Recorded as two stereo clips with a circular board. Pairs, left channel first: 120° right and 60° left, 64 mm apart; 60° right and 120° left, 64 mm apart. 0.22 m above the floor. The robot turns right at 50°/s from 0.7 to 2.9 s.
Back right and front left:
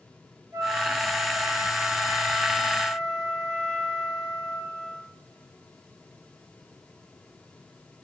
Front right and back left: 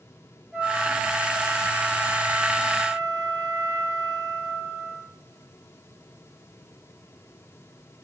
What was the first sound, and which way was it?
A flute, 50° left.